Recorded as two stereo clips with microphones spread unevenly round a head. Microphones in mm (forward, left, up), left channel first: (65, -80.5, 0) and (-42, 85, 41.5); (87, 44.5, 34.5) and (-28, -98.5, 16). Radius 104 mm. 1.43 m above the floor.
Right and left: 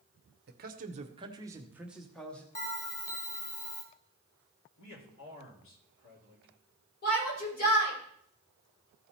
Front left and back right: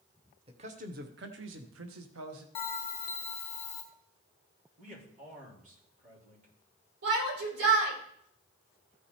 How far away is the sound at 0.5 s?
About 1.0 m.